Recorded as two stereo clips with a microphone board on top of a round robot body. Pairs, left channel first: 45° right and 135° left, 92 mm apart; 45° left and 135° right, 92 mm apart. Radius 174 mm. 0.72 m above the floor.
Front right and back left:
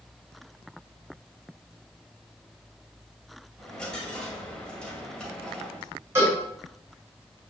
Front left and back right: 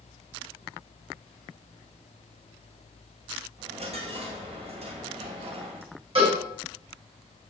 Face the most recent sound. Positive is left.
turn(degrees=-160)